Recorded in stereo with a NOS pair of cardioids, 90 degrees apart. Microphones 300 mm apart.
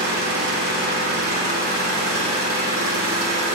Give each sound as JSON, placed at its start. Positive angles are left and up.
{"t": 0.0, "sound": "an engine running", "azimuth_deg": -45, "distance_m": 3.0}